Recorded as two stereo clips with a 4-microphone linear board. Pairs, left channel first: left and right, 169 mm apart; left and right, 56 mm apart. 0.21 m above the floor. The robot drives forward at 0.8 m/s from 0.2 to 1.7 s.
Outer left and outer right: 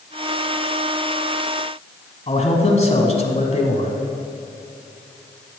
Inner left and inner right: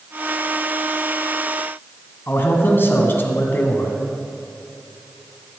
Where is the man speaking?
40° left (ahead or behind), 1.4 m.